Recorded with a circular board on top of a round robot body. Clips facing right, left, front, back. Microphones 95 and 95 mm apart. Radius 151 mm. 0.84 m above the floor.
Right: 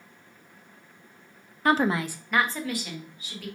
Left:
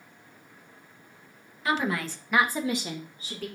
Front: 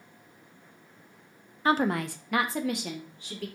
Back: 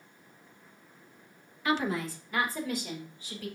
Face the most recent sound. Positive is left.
turn(degrees=35)